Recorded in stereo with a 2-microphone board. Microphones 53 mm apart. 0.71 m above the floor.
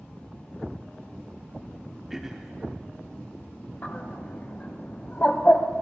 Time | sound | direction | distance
2.1 | throat clearing | 10° right (ahead or behind) | 0.8 m
3.8 | a bird | 35° left (ahead or behind) | 0.8 m